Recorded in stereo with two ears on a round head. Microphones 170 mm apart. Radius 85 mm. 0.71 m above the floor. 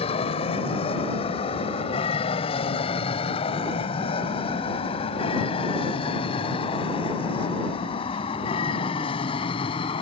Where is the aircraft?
35° left (ahead or behind); by 10.0 s 30° left (ahead or behind).